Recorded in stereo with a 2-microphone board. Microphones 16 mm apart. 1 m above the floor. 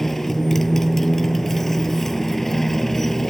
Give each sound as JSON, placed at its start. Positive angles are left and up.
{"t": 0.0, "sound": "a motorcycle", "side_deg": 15}